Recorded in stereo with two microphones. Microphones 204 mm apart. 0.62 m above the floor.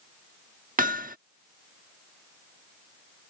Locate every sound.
0.8 s hammering: 40° right (ahead or behind)